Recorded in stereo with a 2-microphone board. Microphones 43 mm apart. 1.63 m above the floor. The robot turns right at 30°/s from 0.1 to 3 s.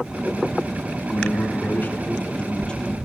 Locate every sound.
1.1 s a man speaking: 110° left, 1.7 m; by 3.0 s 170° left, 1.7 m